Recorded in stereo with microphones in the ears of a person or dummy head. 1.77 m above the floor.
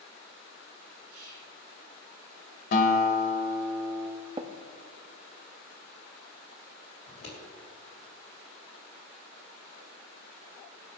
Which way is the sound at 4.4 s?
25° right (ahead or behind).